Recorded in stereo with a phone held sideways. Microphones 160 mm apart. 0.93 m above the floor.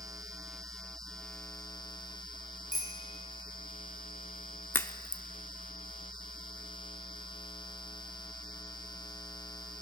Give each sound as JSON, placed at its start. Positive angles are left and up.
{"t": 2.7, "sound": "a bicycle bell", "side_deg": 60, "distance_m": 5.0}
{"t": 4.7, "sound": "a crack", "side_deg": 15, "distance_m": 0.7}